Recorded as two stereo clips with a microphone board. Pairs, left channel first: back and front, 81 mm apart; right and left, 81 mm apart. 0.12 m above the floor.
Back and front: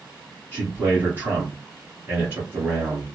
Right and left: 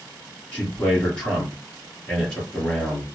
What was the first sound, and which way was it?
A man speaking, 25° right.